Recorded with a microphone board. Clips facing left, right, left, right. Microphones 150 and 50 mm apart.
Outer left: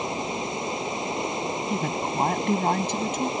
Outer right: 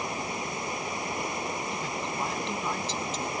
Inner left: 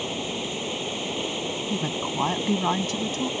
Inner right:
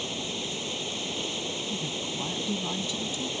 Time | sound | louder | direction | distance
0.0 | running water | outer left 4 dB, inner left 4 dB | 20° left (ahead or behind) | ?
1.7 | a woman speaking | outer left 6 dB, inner left 6 dB | 55° left (ahead or behind) | ?